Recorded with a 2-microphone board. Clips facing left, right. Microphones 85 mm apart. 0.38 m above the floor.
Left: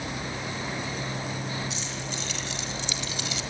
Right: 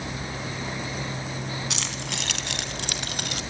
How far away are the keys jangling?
About 3 m.